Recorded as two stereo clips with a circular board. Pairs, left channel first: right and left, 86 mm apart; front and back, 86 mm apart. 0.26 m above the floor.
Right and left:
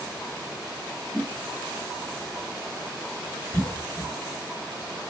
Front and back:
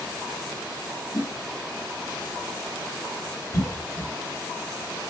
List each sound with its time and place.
1.1 s a whoosh: 5° right, 0.9 m
3.5 s a cough: 20° right, 2 m